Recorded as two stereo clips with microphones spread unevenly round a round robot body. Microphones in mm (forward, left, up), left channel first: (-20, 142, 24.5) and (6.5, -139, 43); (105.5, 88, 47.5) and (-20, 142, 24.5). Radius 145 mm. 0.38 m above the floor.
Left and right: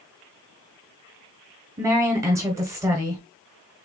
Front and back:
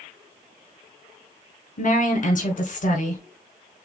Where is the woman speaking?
5° right, 1.9 m.